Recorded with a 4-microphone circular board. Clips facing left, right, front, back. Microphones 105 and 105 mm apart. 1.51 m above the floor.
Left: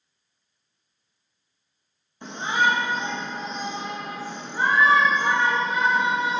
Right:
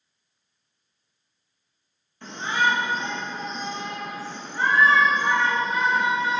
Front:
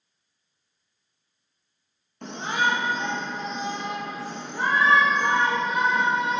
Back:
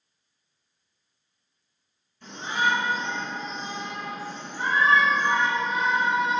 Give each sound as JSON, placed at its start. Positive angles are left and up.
{"t": 2.2, "sound": "a shout", "azimuth_deg": 20, "distance_m": 1.5}